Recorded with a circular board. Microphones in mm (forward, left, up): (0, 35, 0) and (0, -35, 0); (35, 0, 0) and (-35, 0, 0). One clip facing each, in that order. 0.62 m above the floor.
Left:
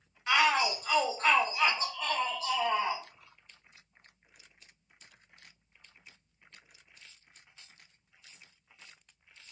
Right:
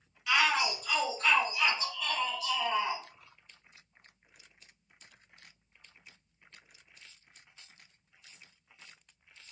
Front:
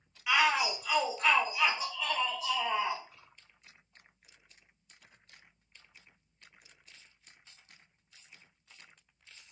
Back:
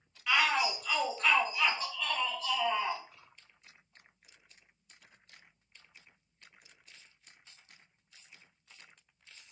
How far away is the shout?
About 0.9 m.